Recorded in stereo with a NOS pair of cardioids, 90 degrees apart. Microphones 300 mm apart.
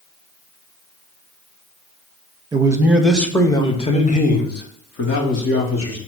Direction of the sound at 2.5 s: 15° right.